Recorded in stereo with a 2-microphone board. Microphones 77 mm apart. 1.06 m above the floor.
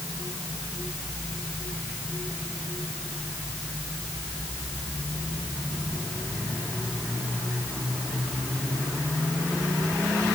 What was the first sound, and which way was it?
Only background noise.